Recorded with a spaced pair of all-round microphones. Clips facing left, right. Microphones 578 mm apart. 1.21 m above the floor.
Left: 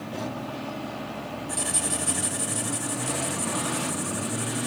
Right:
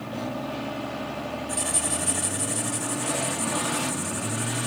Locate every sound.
1.5 s writing: 5° right (ahead or behind), 1.9 m